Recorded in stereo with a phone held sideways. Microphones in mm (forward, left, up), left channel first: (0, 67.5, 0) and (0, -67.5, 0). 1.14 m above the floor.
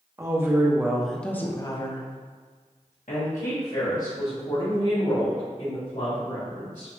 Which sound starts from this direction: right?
A woman speaking, at 0.2 s.